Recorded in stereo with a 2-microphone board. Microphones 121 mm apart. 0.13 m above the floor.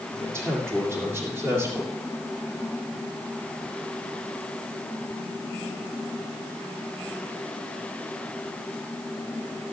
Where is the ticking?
No ticking in this recording.